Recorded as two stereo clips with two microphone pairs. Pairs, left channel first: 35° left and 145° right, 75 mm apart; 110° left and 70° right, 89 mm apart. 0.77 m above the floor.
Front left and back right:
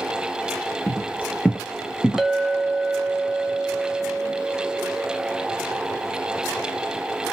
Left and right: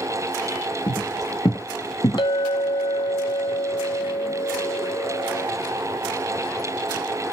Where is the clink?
130° left, 0.5 m.